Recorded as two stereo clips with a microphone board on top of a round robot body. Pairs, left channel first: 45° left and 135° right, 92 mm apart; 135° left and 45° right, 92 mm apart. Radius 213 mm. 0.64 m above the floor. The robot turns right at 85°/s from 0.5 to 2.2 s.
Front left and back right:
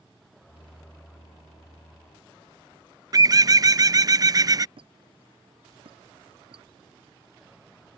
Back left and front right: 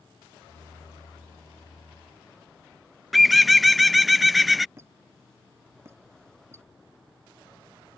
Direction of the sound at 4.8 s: 110° right.